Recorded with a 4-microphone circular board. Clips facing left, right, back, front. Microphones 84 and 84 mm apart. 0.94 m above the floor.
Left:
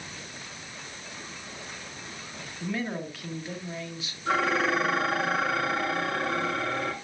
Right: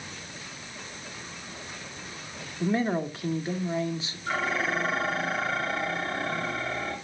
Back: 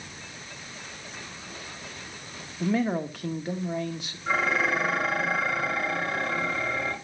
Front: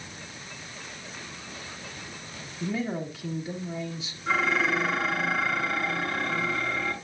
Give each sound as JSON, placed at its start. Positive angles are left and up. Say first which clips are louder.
{"t": 2.6, "sound": "a man speaking", "louder": "right 6 dB, back 5 dB", "azimuth_deg": -150, "distance_m": 1.7}
{"t": 4.3, "sound": "dishes clattering", "louder": "left 4 dB, even", "azimuth_deg": 100, "distance_m": 7.5}